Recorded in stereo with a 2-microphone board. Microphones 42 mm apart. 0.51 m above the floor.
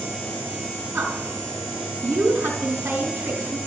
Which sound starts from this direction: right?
A woman speaking, at 0.9 s.